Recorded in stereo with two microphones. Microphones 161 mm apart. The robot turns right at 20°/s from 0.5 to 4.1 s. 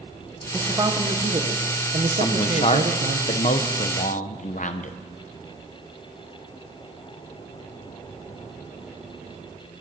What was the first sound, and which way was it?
A man speaking, 150° right.